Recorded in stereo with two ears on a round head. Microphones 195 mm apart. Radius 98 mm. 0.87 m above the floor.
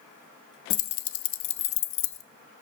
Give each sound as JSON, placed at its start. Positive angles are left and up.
{"t": 0.7, "sound": "keys jangling", "side_deg": 65, "distance_m": 0.5}